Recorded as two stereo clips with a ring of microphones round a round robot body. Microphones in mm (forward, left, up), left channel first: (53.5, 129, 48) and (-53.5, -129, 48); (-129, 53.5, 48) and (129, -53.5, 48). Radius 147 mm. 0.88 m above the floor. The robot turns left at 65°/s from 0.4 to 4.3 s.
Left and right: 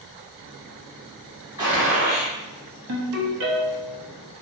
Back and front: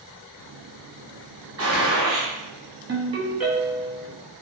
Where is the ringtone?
75° right, 0.8 m; by 4.0 s 150° right, 0.8 m.